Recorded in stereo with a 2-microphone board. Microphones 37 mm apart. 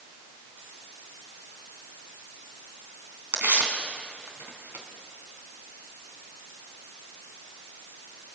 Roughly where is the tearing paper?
Right.